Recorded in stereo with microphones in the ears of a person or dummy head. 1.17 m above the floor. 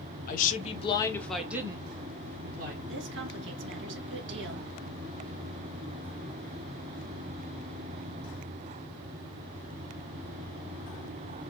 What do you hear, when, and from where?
0.3 s a woman speaking: 45° left (ahead or behind), 1.3 m; by 2.8 s 50° right (ahead or behind), 1.6 m
2.9 s a woman speaking: 65° right (ahead or behind), 1.7 m